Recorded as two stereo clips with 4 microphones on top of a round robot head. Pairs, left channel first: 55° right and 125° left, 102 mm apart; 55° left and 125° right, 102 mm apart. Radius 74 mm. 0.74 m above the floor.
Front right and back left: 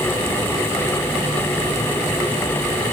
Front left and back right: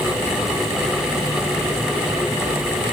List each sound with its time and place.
Only background noise.